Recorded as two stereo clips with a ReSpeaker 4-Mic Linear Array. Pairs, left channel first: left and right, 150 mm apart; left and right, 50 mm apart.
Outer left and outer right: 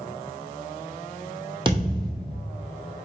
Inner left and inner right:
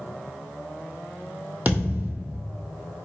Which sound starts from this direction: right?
A thud, at 1.6 s.